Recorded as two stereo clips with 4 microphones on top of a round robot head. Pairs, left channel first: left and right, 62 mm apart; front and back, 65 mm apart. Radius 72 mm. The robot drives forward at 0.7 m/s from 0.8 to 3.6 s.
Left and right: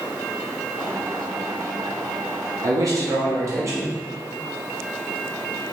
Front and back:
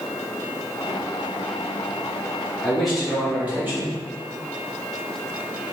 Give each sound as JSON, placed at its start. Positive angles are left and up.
{"t": 2.6, "sound": "a man speaking", "azimuth_deg": -80, "distance_m": 1.0}